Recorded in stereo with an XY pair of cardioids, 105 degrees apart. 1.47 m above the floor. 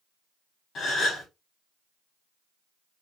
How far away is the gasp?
About 2.5 m.